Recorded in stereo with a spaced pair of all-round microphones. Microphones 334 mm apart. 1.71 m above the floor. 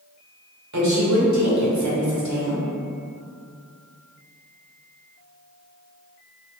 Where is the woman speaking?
55° right (ahead or behind), 0.9 m.